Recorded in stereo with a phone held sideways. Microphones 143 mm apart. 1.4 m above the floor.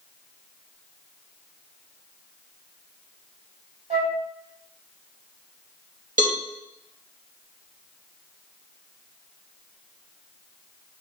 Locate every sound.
3.9 s a flute: 50° right (ahead or behind), 3 m
6.2 s a cowbell: 75° right (ahead or behind), 2 m